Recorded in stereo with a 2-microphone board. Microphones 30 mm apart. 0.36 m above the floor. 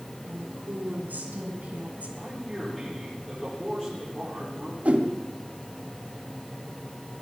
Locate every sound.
0.3 s a woman speaking: 75° right (ahead or behind), 4.5 m; by 2.2 s 50° right (ahead or behind), 2 m
2.1 s a man speaking: 5° left (ahead or behind), 9.5 m
4.8 s a whoosh: 50° right (ahead or behind), 1.6 m